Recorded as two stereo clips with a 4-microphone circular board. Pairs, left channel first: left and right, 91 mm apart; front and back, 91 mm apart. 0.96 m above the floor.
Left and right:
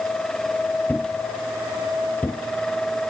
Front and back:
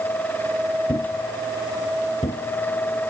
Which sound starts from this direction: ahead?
A thud, at 0.9 s.